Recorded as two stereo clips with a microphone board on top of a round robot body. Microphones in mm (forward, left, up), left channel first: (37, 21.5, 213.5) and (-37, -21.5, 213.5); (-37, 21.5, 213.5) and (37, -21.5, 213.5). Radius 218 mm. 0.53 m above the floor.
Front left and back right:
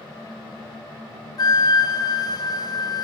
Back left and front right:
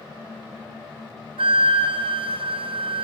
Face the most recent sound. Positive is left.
turn(degrees=-15)